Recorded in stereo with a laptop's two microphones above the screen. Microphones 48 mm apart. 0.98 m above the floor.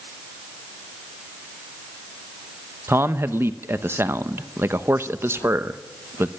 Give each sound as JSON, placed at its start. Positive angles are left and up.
{"t": 2.9, "sound": "a man speaking", "side_deg": -50, "distance_m": 0.9}